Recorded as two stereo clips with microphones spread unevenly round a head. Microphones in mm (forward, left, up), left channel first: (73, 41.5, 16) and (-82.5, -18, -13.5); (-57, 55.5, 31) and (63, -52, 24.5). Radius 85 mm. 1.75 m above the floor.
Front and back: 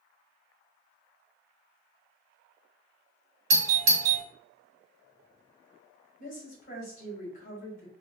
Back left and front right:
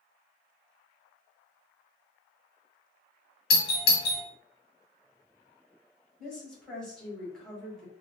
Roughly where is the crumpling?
No crumpling in this recording.